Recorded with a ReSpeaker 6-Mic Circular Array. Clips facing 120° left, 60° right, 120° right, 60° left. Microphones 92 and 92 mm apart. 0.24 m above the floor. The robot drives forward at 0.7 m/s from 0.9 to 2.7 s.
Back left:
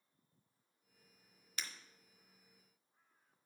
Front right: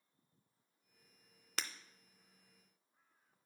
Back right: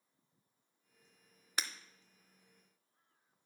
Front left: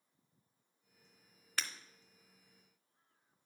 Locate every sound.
1.6 s breaking glass: 50° right, 0.5 m; by 1.7 s 55° right, 0.5 m